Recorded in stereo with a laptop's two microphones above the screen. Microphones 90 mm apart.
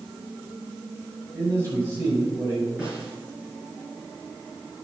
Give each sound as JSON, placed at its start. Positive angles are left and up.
{"t": 1.3, "sound": "a man speaking", "side_deg": -30, "distance_m": 5.5}
{"t": 2.8, "sound": "a snare drum", "side_deg": -10, "distance_m": 5.5}